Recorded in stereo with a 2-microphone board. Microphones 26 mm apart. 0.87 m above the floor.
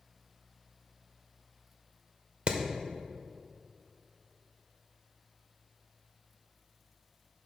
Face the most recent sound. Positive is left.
turn(degrees=-50)  # may be behind; listen again after turning